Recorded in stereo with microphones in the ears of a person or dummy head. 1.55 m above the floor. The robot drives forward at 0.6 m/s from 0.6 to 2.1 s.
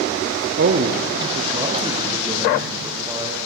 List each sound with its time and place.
0.6 s a man speaking: 50° right (ahead or behind), 0.5 m; by 3.4 s 20° right (ahead or behind), 1.2 m